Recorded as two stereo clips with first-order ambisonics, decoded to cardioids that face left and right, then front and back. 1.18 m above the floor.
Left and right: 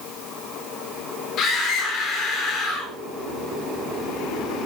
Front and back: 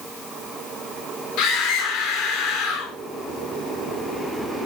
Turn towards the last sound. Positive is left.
turn(degrees=40)